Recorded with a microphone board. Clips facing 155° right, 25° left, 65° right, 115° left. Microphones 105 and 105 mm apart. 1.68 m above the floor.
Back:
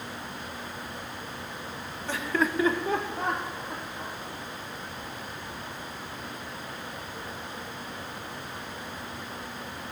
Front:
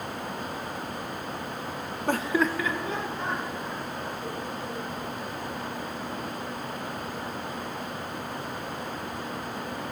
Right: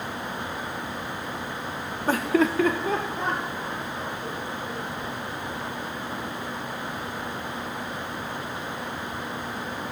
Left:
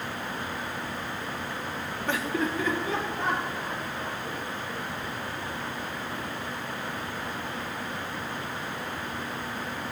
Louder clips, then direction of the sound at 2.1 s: Front 3 dB, right 7 dB; 15° right.